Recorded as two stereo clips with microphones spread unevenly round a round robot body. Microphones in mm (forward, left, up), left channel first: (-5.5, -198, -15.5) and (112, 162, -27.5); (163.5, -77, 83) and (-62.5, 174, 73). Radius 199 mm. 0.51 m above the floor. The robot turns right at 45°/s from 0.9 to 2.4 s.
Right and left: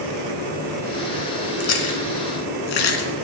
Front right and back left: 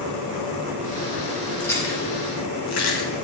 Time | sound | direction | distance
1.6 | chewing | 135° right | 1.7 m